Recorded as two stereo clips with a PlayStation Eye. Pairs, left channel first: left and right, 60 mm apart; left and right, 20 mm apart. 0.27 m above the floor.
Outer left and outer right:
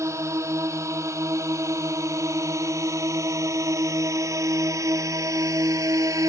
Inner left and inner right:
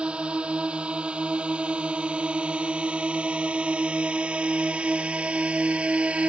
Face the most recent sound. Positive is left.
turn(degrees=-65)  # may be behind; listen again after turning